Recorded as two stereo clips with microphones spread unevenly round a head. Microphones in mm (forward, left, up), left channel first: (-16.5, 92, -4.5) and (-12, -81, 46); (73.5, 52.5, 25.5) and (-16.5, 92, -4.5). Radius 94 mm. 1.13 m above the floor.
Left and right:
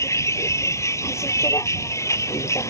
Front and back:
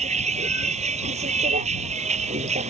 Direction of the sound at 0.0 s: 165° left.